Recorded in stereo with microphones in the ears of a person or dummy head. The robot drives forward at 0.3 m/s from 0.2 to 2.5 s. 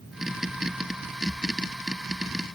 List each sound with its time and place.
Only background noise.